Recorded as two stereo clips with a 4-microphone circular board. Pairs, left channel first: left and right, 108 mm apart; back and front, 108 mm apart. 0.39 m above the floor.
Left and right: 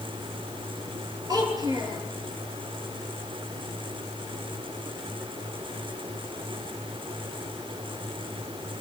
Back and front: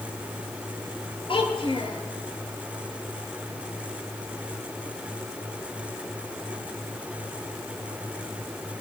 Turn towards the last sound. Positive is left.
turn(degrees=-140)